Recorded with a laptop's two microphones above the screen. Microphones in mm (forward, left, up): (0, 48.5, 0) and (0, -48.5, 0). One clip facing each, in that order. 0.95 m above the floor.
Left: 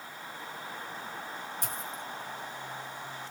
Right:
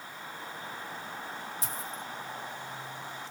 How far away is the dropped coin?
About 1.8 m.